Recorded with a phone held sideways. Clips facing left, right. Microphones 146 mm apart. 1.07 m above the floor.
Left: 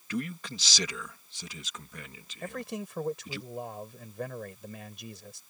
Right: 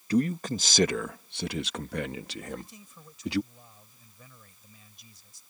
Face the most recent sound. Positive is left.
turn(degrees=75)  # may be behind; listen again after turning